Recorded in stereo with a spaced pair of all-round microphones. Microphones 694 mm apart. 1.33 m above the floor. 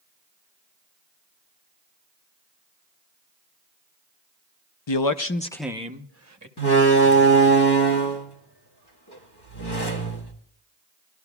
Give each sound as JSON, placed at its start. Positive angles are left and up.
{"t": 4.9, "sound": "a man speaking", "side_deg": 45, "distance_m": 0.6}
{"t": 6.6, "sound": "a door slam", "side_deg": 35, "distance_m": 1.6}